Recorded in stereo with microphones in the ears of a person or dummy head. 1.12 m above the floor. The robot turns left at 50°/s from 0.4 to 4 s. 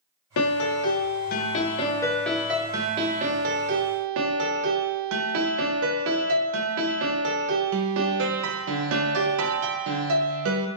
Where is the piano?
100° left, 0.6 m; by 10.7 s 80° right, 0.6 m.